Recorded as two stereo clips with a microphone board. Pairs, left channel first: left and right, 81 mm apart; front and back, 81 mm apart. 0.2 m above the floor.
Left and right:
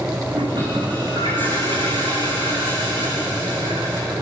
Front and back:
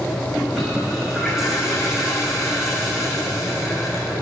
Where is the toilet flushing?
90° right, 8 m.